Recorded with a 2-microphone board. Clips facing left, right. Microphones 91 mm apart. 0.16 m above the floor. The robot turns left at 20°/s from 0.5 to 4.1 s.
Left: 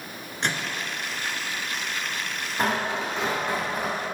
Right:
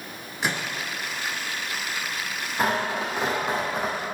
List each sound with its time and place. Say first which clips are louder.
0.4 s a microwave: right 1 dB; 5° right (ahead or behind), 1.5 m; by 0.8 s 10° right (ahead or behind), 1.5 m
2.6 s tearing paper: right 1 dB; centre (ahead or behind), 3.5 m; by 4.0 s 30° right (ahead or behind), 3.5 m